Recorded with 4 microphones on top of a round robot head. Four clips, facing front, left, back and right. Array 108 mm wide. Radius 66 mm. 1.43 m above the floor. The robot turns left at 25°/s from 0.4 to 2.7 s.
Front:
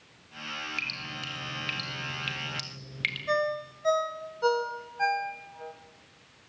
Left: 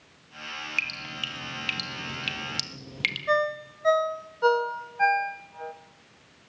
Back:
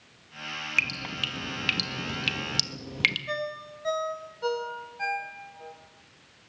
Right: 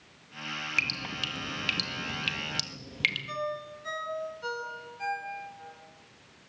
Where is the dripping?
140° right, 1.4 m; by 3.2 s 170° left, 1.4 m.